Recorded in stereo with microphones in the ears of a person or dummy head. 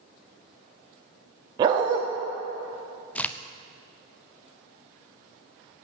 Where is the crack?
5° left (ahead or behind), 0.5 m.